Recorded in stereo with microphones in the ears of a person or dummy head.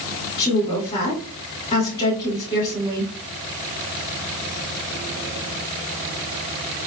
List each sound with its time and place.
0.4 s a woman speaking: 35° left (ahead or behind), 2.5 m